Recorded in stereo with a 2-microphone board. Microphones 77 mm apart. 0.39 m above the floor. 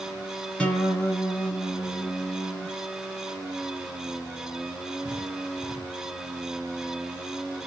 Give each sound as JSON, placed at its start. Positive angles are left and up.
{"t": 0.6, "sound": "a guitar", "side_deg": 15, "distance_m": 1.0}